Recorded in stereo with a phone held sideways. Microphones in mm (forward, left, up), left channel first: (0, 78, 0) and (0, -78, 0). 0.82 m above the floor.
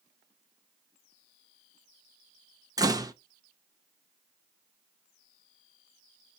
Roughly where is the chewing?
No chewing in this recording.